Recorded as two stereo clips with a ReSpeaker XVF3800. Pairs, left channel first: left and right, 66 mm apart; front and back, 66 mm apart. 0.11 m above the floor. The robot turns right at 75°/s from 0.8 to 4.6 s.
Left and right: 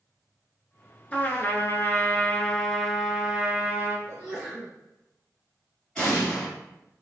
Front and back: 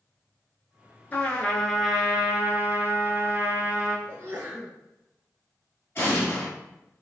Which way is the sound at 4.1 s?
Straight behind.